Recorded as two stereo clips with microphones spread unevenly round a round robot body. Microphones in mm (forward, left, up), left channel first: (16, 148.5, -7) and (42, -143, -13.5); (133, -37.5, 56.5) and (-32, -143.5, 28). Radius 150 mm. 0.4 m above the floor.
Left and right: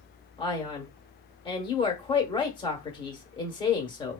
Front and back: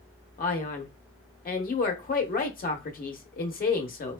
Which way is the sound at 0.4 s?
30° left.